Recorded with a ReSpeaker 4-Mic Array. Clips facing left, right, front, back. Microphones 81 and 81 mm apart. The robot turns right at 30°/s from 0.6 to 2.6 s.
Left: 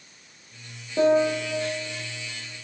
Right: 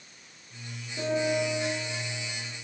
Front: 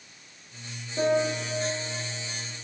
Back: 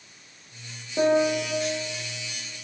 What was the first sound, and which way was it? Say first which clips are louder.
A piano: left 7 dB, back 4 dB; 115° left.